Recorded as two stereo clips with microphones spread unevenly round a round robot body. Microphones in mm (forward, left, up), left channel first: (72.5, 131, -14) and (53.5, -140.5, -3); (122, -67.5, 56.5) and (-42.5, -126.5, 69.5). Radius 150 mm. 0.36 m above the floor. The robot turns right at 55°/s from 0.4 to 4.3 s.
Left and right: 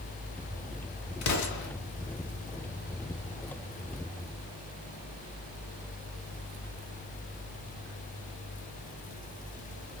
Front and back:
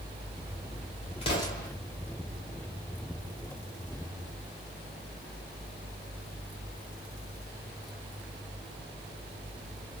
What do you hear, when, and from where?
1.2 s an explosion: 75° left, 0.9 m; by 1.7 s 100° left, 0.9 m